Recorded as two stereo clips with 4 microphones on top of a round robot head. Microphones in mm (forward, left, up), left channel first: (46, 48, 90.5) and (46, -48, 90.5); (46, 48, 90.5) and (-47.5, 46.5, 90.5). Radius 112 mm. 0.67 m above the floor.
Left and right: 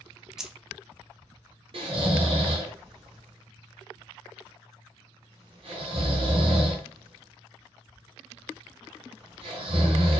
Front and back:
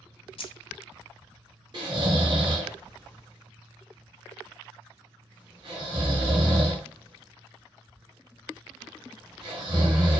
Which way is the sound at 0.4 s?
5° right.